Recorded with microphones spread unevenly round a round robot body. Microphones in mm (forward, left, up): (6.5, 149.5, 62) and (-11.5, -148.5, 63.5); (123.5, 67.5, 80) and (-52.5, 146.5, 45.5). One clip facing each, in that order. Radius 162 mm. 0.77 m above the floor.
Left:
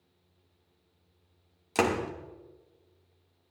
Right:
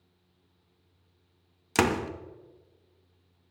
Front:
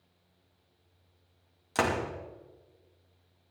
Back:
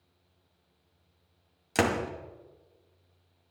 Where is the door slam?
145° right, 0.9 m.